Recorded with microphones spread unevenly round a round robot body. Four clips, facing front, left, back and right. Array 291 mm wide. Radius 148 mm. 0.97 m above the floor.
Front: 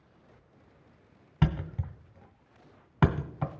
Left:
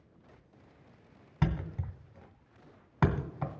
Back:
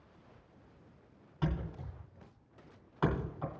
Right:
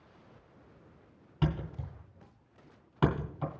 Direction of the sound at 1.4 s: 10° left.